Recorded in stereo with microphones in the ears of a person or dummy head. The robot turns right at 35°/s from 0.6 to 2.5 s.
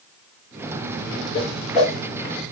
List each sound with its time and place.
1.3 s a whoosh: 30° left (ahead or behind), 1.5 m; by 2.0 s 50° left (ahead or behind), 1.5 m